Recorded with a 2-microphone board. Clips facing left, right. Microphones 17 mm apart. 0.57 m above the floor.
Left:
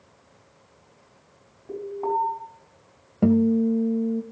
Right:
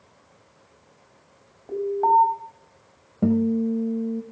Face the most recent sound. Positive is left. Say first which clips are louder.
# left 2 dB
turn(degrees=35)  # may be behind; listen again after turning